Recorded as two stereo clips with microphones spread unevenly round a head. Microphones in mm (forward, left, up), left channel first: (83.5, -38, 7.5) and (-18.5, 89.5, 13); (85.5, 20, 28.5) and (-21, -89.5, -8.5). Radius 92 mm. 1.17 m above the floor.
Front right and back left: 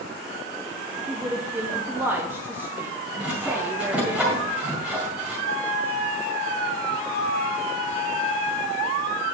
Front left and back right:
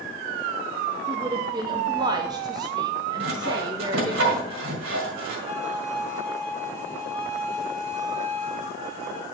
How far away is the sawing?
About 1.8 m.